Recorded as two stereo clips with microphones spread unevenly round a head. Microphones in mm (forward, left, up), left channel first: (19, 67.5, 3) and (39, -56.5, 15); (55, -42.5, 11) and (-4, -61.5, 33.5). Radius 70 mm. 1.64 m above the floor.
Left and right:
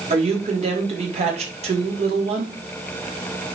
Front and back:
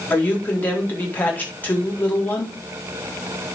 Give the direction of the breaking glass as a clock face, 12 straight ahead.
No breaking glass in this recording.